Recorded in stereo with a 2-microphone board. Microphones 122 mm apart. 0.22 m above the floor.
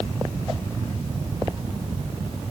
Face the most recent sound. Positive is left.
No sound to turn to.